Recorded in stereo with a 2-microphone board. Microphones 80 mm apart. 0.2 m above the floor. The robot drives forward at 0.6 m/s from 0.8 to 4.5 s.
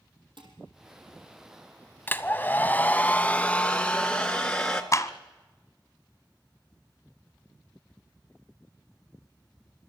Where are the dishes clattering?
80° right, 5 m.